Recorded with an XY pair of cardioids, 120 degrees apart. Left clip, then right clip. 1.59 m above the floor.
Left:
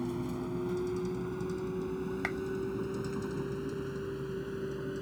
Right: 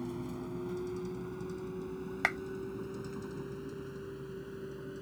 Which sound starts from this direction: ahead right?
A clap, at 2.2 s.